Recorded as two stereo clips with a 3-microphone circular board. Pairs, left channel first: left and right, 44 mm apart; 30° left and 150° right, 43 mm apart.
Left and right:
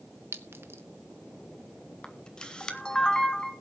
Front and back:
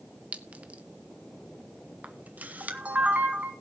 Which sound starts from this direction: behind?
A camera shutter, at 2.0 s.